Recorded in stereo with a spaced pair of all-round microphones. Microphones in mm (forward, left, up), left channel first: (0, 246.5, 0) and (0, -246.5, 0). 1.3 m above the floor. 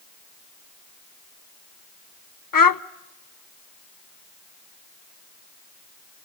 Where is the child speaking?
45° left (ahead or behind), 0.6 m.